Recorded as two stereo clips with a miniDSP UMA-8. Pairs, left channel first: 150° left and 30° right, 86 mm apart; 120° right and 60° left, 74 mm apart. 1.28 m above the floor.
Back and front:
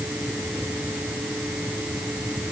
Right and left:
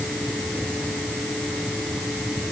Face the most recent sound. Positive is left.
No sound to turn to.